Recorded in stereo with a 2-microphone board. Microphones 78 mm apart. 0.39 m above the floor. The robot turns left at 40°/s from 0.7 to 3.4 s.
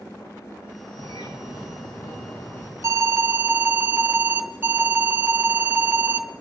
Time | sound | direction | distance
1.0 | a bird | 110° left | 7 m
2.8 | an alarm | 40° right (ahead or behind) | 0.9 m